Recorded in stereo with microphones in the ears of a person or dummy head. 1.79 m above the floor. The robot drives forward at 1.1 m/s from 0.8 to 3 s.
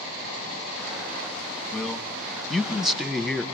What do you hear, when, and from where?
1.7 s a man speaking: centre (ahead or behind), 3 m